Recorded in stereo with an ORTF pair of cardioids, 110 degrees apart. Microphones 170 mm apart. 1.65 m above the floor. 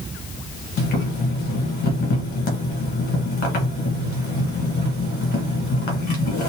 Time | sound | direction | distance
0.8 | boiling | 70° left | 1.5 m